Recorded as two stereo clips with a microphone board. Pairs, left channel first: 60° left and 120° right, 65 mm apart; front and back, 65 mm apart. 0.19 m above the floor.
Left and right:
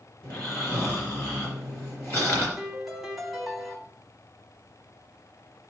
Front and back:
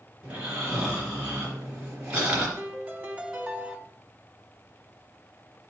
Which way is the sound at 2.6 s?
155° left.